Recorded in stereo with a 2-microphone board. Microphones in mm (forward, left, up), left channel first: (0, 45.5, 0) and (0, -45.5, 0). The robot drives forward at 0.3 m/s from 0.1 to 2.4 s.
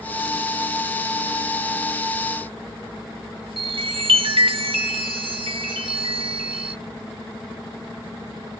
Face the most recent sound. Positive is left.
turn(degrees=-70)  # may be behind; listen again after turning